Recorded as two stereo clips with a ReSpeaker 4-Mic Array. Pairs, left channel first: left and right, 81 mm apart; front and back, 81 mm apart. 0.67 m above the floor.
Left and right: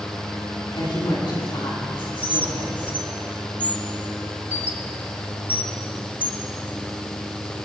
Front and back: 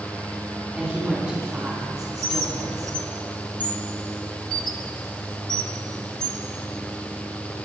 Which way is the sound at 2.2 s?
20° right.